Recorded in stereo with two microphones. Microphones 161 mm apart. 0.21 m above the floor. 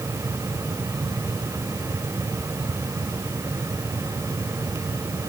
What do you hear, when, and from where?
Only background noise.